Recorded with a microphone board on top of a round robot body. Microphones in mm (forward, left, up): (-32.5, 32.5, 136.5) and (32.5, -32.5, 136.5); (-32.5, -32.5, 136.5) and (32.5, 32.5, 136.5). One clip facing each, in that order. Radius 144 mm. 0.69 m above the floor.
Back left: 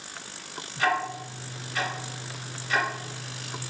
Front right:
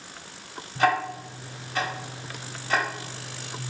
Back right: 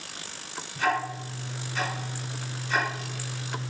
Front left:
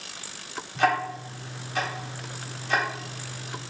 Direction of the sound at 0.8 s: 15° left.